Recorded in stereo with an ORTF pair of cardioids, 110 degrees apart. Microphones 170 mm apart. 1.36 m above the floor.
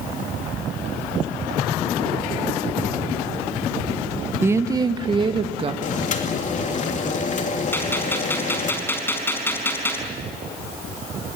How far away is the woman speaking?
About 1.0 m.